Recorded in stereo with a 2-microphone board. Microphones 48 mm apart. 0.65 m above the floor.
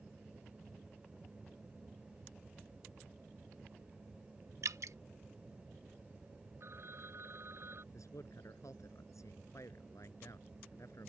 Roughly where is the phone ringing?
Right.